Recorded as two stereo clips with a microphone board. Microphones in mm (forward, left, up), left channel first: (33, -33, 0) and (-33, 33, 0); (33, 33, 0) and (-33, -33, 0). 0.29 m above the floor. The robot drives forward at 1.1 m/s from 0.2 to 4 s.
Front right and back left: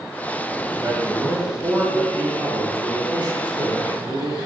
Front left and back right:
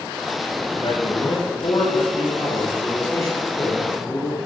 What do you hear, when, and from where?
0.7 s a man speaking: 75° left, 6 m; by 4.4 s 110° left, 6 m